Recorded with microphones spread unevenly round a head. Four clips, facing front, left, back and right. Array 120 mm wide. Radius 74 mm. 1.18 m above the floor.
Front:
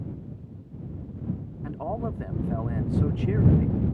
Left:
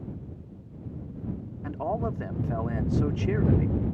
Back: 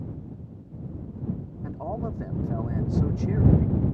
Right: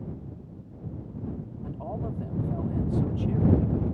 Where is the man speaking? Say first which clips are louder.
Left 6 dB, front 1 dB; 65° left.